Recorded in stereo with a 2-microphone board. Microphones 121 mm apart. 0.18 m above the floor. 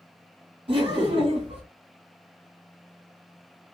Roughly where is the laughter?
Right.